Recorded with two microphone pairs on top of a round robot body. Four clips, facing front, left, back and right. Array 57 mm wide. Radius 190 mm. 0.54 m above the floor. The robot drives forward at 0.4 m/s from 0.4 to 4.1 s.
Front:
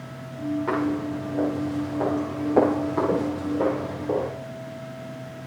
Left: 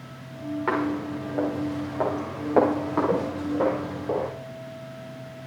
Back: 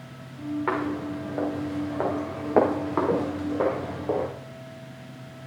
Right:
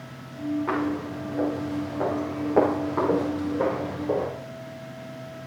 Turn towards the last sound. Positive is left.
turn(degrees=175)